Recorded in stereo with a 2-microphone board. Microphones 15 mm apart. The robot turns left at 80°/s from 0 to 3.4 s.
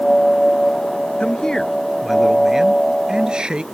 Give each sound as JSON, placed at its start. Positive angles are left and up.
{"t": 1.2, "sound": "a man speaking", "azimuth_deg": 75}